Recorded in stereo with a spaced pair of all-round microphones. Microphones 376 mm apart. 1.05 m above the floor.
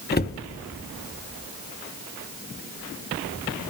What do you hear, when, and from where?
0.1 s a cupboard door: 25° left (ahead or behind), 0.5 m